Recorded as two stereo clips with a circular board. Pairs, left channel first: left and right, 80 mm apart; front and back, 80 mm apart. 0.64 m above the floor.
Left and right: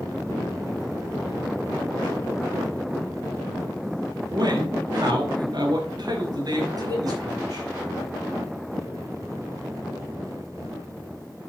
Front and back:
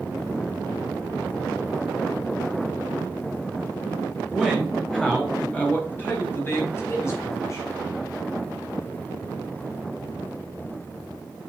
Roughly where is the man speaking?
Right.